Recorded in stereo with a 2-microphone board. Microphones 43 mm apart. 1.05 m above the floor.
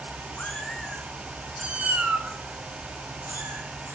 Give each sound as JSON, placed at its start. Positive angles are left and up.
{"t": 0.4, "sound": "a cat meowing", "side_deg": 35, "distance_m": 1.1}